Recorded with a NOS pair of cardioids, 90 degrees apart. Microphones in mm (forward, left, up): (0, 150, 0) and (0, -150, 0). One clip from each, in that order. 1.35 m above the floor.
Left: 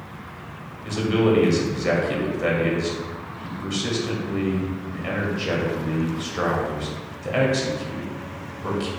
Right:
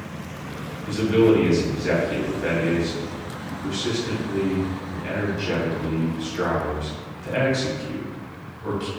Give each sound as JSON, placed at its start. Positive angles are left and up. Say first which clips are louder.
{"t": 0.8, "sound": "a man speaking", "louder": "right 3 dB", "azimuth_deg": 45, "distance_m": 1.4}